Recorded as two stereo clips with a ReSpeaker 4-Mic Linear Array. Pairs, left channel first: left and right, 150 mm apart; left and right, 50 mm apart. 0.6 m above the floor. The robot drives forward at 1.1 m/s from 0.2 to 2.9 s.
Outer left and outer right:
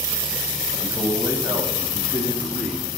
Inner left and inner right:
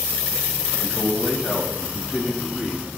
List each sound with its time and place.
0.8 s a man speaking: 20° right (ahead or behind), 3 m; by 3.0 s 10° right (ahead or behind), 5 m